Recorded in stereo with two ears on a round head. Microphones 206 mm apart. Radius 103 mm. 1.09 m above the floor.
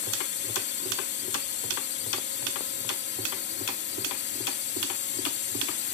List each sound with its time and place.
0.0 s a drone: 50° left (ahead or behind)